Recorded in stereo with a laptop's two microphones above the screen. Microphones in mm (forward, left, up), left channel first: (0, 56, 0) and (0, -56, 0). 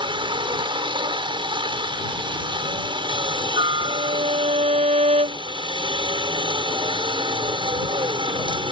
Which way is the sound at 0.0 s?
45° right (ahead or behind).